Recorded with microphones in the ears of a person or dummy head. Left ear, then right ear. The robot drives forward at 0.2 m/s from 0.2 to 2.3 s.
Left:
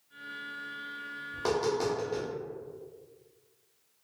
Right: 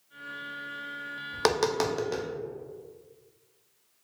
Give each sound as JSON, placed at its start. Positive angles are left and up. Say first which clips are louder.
{"t": 1.3, "sound": "tapping", "louder": "right 4 dB", "side_deg": -45, "distance_m": 0.5}